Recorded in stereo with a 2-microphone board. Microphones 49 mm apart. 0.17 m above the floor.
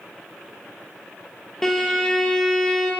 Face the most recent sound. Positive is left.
turn(degrees=10)  # may be behind; listen again after turning